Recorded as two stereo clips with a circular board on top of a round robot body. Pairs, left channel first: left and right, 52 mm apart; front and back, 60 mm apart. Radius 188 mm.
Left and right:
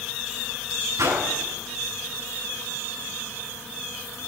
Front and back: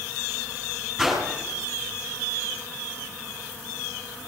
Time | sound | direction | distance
1.0 | a whoosh | 90° right | 9.5 m